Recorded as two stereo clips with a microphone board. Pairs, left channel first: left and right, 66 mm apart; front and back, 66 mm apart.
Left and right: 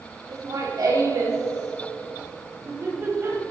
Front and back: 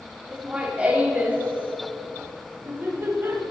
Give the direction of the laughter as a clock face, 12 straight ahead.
4 o'clock.